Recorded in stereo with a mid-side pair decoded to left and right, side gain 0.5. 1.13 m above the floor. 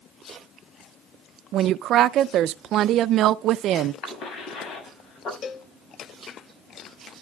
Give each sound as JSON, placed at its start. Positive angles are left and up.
{"t": 1.5, "sound": "a woman speaking", "azimuth_deg": -65, "distance_m": 0.5}
{"t": 4.0, "sound": "a cough", "azimuth_deg": 60, "distance_m": 7.0}
{"t": 5.4, "sound": "a cowbell", "azimuth_deg": 55, "distance_m": 1.2}